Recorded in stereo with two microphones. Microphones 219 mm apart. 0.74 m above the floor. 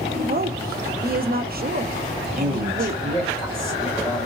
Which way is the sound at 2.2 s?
Centre (ahead or behind).